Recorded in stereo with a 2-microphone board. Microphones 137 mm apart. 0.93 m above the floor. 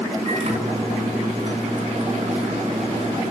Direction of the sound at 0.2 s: 50° right (ahead or behind).